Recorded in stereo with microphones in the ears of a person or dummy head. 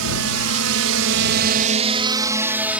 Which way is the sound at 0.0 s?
75° right (ahead or behind).